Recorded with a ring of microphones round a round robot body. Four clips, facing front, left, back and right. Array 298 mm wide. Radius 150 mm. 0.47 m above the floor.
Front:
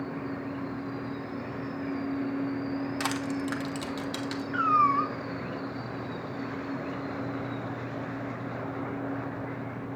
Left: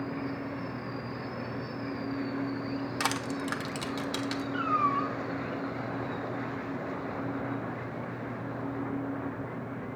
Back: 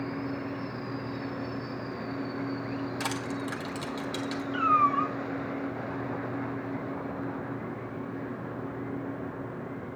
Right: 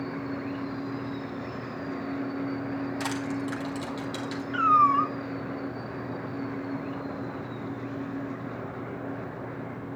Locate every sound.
3.0 s crushing: 65° left, 1.1 m
4.5 s a cat meowing: 75° right, 0.7 m